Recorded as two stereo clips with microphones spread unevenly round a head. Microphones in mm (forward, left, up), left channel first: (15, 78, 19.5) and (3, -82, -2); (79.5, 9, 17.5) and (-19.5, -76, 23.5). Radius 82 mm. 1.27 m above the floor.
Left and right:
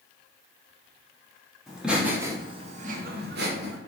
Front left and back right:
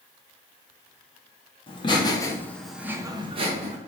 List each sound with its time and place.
1.7 s laughter: 5° right, 1.0 m; by 3.8 s 110° right, 0.9 m